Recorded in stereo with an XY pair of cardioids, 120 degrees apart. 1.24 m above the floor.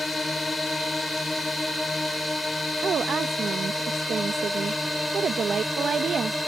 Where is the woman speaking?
40° right.